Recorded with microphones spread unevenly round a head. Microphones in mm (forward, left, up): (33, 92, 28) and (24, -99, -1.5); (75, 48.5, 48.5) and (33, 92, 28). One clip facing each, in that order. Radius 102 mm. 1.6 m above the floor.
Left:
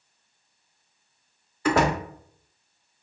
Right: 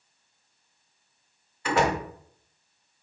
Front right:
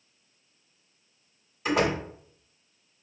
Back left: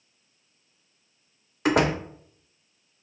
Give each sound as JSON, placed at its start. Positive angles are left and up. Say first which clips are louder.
{"t": 1.6, "sound": "a door slam", "louder": "left 3 dB, back left 3 dB", "azimuth_deg": 105, "distance_m": 0.7}